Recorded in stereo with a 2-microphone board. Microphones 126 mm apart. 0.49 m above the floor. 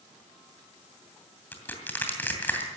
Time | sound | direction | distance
1.5 | crushing | 15° left (ahead or behind) | 2.5 m